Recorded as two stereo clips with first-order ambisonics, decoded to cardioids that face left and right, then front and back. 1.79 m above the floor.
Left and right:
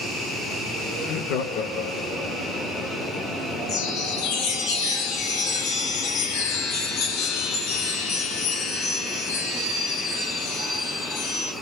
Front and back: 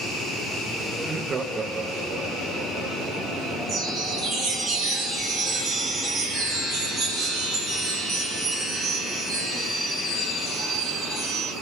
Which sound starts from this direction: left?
Laughter, at 1.0 s.